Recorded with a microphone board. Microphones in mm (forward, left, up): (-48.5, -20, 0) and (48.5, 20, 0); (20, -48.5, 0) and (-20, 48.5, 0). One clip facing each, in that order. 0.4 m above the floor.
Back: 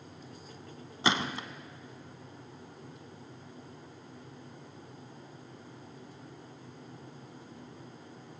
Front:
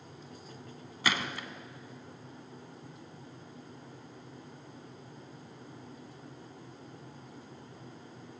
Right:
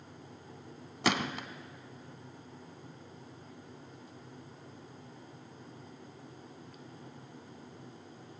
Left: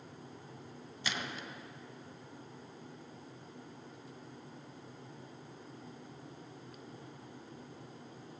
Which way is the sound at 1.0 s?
90° right.